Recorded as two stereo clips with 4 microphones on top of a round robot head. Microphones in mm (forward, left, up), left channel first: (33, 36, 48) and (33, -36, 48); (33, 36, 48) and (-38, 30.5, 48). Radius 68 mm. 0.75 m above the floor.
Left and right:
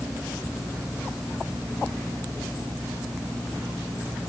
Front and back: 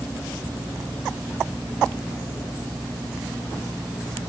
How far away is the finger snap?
I don't hear a finger snap.